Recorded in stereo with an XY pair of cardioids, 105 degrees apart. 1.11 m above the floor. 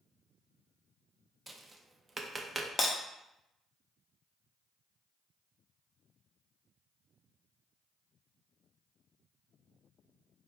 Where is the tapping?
20° right, 0.6 m.